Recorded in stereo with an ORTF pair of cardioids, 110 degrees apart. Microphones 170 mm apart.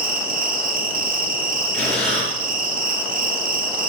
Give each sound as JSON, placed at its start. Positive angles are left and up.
{"t": 0.0, "sound": "an insect", "azimuth_deg": -55, "distance_m": 1.6}
{"t": 1.7, "sound": "breathing", "azimuth_deg": 5, "distance_m": 7.5}